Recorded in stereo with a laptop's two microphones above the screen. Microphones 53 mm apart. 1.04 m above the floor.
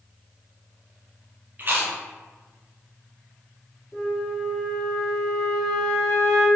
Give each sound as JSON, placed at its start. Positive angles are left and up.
{"t": 1.6, "sound": "chewing", "side_deg": -40, "distance_m": 0.5}
{"t": 3.9, "sound": "a flute", "side_deg": 5, "distance_m": 1.0}